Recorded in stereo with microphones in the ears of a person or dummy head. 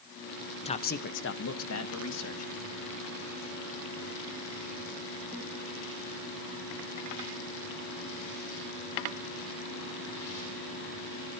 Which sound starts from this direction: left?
A man speaking, at 0.7 s.